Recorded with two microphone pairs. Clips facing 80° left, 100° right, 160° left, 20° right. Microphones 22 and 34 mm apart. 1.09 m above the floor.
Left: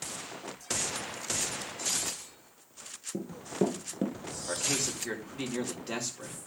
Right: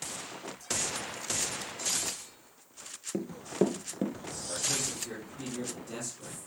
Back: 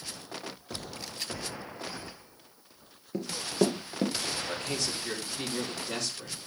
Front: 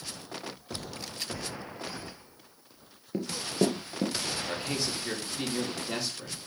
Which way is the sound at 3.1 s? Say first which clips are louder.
Right 2 dB, back 1 dB; 100° right.